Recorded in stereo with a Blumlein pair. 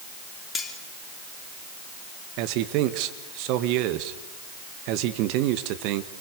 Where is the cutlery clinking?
15° left, 3 m.